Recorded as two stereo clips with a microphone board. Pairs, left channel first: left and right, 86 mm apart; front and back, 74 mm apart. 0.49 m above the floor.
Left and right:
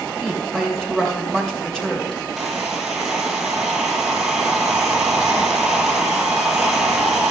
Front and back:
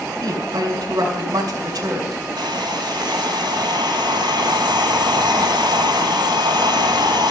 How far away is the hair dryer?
About 2 m.